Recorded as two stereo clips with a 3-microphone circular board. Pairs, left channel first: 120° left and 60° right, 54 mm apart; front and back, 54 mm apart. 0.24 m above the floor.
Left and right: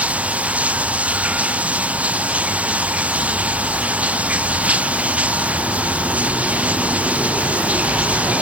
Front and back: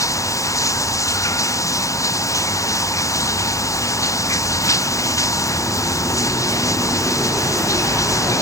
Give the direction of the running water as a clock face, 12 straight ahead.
12 o'clock.